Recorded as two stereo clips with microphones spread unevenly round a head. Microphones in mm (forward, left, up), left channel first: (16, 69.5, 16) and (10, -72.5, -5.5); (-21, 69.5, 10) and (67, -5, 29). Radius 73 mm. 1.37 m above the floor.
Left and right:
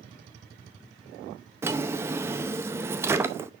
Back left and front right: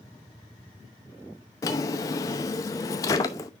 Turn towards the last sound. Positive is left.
turn(degrees=-165)